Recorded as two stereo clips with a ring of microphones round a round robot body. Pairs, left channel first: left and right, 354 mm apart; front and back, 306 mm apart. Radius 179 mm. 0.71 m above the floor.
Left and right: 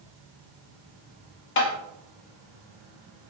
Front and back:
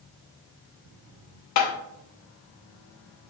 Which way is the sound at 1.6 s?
35° left.